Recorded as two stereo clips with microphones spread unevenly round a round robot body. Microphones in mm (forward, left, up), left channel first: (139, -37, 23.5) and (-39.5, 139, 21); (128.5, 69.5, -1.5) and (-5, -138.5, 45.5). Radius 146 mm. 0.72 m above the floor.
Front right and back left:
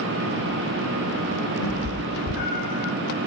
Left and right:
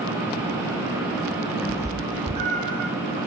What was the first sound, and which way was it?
A cat meowing, 40° right.